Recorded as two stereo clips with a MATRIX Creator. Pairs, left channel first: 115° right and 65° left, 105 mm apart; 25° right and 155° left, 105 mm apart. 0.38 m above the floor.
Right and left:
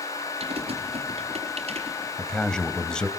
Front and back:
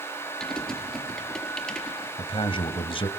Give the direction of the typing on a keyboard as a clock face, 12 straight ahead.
10 o'clock.